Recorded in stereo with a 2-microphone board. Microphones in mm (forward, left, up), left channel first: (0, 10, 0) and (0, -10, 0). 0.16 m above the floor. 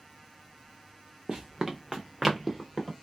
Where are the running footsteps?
35° right (ahead or behind), 0.6 m; by 2.9 s 10° left (ahead or behind), 1.4 m.